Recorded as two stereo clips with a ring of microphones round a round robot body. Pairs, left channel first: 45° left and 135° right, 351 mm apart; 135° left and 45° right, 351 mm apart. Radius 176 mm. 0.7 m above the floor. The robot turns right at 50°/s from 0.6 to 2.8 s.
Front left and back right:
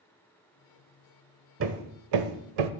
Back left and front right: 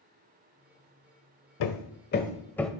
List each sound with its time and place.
1.6 s hammering: 170° left, 0.9 m; by 2.7 s 135° right, 0.9 m